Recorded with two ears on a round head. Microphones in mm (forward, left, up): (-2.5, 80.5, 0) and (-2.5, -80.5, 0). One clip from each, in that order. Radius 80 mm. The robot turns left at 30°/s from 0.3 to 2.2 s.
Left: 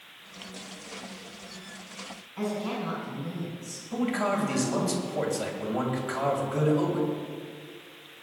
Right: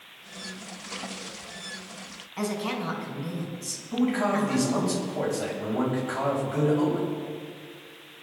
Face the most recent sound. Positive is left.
turn(degrees=20)  # may be behind; listen again after turning